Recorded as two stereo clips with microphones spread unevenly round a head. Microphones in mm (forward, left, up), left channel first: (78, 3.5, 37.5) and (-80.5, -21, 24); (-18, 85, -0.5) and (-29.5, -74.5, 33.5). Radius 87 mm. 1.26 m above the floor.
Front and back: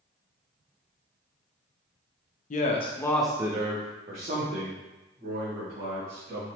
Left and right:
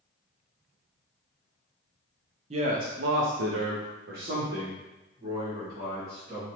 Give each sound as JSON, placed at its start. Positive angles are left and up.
{"t": 2.5, "sound": "a man speaking", "azimuth_deg": -35, "distance_m": 0.6}